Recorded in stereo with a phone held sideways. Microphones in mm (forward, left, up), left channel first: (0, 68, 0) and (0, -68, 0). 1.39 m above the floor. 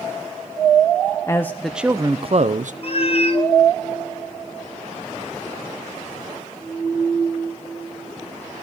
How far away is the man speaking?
About 0.8 m.